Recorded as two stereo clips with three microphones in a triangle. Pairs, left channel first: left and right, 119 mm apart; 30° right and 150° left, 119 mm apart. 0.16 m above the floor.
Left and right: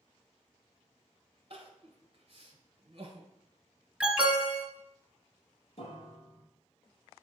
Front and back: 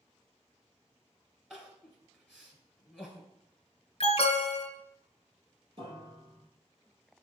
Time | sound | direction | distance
1.5 | crying | 125° right | 1.4 m
4.0 | an alarm | 10° right | 1.3 m
5.8 | a piano | 120° left | 2.5 m